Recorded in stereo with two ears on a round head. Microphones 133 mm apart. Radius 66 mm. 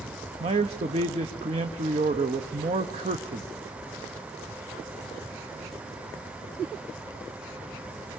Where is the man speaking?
40° right (ahead or behind), 1.0 m.